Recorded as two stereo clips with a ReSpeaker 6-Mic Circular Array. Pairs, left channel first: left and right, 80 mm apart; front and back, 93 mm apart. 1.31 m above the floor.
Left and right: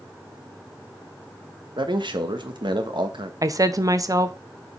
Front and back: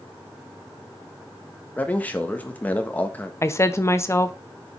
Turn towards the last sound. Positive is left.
turn(degrees=-55)